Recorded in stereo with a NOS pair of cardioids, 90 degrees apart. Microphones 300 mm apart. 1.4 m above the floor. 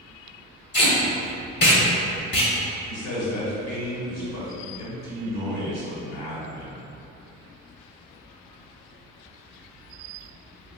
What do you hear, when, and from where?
0.7 s tape being pulled: 35° left, 1.3 m
2.9 s a man speaking: 65° left, 1.3 m